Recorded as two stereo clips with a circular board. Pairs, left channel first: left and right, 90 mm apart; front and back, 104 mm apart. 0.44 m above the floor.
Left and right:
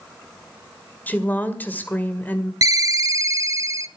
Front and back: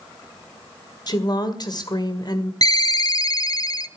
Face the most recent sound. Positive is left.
turn(degrees=-45)